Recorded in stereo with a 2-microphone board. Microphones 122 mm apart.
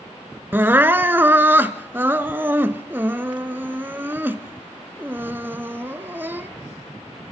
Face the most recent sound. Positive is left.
turn(degrees=-15)  # may be behind; listen again after turning